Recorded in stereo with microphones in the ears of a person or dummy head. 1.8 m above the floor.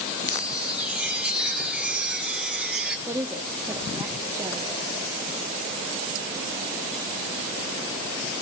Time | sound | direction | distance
0.2 | a chime | 5° right (ahead or behind) | 3 m
3.1 | a woman speaking | 15° right (ahead or behind) | 0.9 m